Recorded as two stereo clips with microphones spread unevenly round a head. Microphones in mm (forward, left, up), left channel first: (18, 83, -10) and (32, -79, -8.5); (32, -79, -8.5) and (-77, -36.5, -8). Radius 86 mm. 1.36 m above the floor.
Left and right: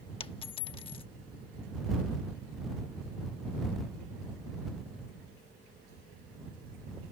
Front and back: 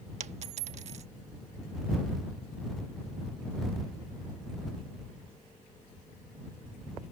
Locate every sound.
0.2 s a dropped coin: 150° left